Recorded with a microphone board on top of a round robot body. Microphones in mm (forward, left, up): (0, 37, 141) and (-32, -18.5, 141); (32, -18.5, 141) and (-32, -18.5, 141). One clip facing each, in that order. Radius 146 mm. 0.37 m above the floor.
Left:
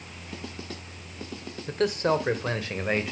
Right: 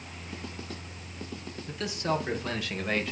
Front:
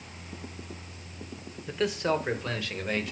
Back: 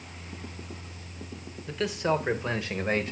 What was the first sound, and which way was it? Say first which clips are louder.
A man speaking: left 6 dB, even; 80° left.